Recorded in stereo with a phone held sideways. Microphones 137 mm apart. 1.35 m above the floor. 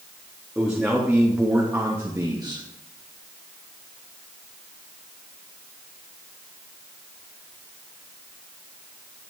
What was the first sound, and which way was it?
A man speaking, 5° right (ahead or behind).